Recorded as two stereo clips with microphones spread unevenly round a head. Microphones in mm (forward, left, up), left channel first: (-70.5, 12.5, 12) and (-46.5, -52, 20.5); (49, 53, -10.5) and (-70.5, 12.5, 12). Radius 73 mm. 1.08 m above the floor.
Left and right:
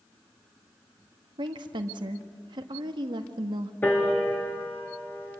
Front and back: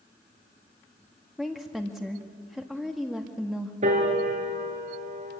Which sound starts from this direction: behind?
A piano, at 3.8 s.